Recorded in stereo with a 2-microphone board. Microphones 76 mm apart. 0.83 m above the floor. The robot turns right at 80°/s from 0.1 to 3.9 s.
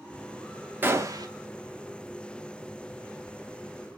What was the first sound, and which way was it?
A gunshot, 150° right.